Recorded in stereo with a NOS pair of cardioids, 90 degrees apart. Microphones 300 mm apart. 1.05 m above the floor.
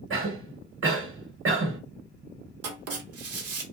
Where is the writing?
55° right, 0.9 m.